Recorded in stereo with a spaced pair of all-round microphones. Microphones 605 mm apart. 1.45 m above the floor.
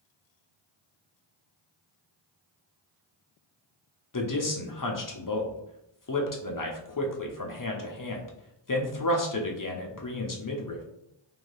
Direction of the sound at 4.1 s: 35° left (ahead or behind).